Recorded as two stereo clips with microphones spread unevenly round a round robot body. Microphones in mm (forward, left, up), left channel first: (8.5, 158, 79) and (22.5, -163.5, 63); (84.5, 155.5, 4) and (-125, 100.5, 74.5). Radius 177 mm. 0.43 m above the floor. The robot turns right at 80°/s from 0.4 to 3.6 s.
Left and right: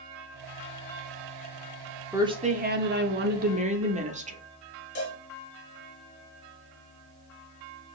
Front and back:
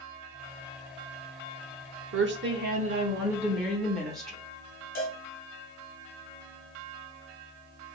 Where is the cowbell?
40° left, 2.5 m.